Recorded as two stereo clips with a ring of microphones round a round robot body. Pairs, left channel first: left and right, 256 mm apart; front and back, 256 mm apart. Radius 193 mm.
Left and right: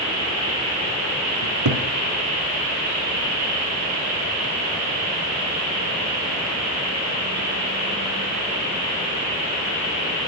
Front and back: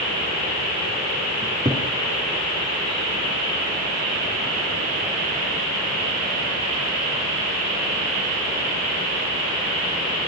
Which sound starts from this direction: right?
A cupboard door, at 1.4 s.